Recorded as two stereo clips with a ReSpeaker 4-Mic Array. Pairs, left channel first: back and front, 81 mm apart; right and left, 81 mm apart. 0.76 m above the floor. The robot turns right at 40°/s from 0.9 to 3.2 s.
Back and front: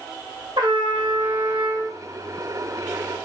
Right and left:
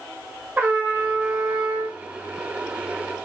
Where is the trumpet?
25° left, 1.5 m; by 2.0 s 65° left, 1.5 m.